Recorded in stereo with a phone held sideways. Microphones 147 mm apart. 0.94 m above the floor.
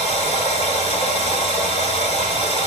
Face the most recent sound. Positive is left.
turn(degrees=45)  # may be behind; listen again after turning